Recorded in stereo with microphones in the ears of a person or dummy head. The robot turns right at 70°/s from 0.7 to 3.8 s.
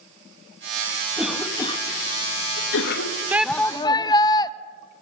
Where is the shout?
10° right, 0.9 m; by 4.5 s 25° left, 0.9 m.